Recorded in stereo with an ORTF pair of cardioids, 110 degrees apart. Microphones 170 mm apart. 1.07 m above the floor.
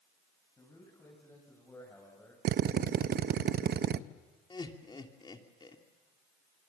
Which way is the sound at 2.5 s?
65° right.